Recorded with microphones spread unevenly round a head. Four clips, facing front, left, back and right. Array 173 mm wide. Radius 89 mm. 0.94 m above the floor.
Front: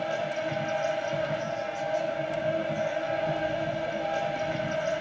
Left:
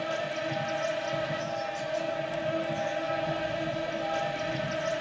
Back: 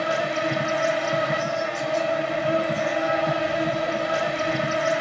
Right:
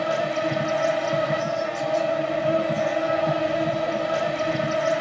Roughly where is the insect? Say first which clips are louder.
Right 8 dB, back 6 dB; behind right.